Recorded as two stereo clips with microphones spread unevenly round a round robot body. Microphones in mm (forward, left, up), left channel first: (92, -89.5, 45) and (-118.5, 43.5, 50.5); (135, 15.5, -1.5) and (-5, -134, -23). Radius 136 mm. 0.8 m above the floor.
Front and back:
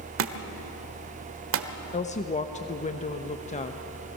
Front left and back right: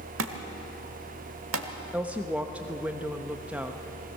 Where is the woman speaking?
60° right, 1.0 m.